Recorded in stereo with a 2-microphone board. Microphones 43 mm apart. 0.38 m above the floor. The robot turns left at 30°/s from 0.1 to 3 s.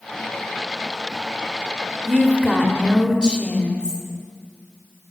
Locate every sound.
2.0 s a woman speaking: centre (ahead or behind), 1.0 m; by 4.0 s 20° left (ahead or behind), 1.0 m